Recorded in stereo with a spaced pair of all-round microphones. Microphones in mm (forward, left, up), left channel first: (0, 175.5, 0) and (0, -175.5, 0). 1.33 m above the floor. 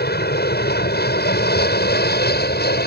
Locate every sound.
0.0 s an aircraft: 25° left (ahead or behind)